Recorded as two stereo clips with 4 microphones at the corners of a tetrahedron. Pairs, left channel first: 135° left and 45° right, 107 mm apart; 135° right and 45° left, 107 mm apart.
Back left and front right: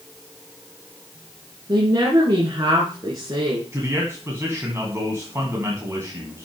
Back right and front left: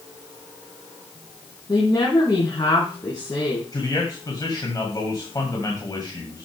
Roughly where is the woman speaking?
Right.